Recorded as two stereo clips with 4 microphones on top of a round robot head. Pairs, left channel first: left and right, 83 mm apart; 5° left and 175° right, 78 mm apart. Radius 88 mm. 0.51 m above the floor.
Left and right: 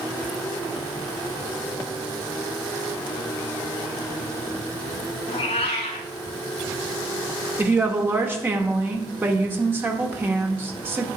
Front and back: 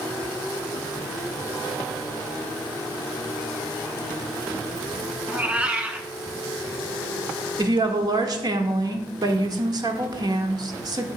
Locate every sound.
5.3 s a cat meowing: 115° left, 0.6 m
7.6 s a woman speaking: 155° right, 1.2 m